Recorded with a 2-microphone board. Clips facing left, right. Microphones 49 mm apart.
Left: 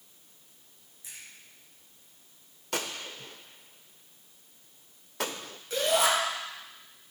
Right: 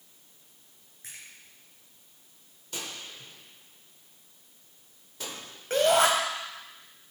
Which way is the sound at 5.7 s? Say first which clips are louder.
Right 4 dB; 50° right (ahead or behind).